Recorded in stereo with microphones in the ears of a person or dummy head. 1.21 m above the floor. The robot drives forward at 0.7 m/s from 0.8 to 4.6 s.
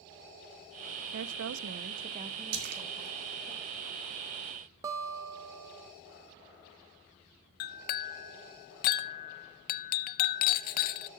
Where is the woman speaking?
70° right (ahead or behind), 0.5 m; by 3.5 s 20° right (ahead or behind), 1.6 m.